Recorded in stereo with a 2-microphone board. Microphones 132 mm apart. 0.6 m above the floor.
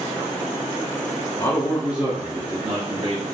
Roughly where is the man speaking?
Left.